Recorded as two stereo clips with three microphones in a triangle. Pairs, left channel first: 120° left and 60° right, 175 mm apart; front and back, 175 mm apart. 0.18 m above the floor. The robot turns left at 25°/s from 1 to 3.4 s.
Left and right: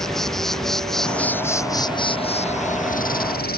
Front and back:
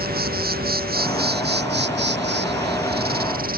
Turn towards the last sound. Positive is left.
turn(degrees=150)